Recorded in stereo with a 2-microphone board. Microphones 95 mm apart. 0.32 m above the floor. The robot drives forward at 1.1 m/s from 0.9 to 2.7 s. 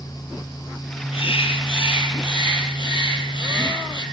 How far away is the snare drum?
I don't hear a snare drum.